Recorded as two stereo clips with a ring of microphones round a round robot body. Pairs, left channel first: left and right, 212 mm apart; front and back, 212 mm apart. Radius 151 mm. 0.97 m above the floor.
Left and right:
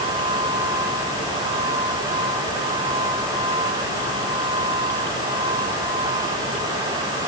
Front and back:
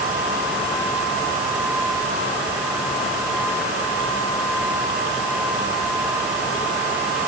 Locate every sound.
Only background noise.